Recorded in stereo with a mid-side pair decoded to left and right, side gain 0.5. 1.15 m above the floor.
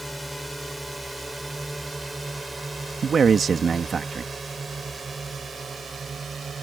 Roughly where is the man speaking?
Ahead right.